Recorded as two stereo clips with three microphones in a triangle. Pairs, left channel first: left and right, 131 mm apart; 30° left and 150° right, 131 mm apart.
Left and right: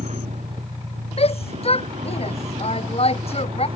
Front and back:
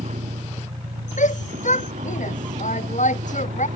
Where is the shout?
50° left.